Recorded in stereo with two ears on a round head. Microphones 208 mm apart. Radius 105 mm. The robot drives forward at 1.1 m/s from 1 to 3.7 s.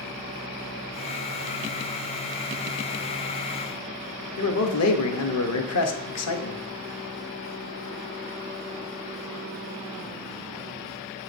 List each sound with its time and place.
4.4 s a man speaking: 70° left (ahead or behind), 1.0 m